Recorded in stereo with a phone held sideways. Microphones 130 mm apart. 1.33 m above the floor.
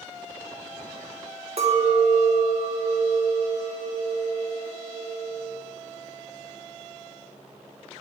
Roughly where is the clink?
Right.